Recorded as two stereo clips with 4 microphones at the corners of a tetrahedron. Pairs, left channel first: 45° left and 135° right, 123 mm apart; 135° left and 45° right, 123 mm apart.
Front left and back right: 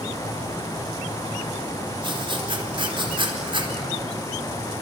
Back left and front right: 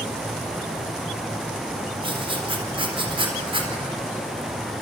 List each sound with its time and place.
2.0 s writing: 90° right, 4 m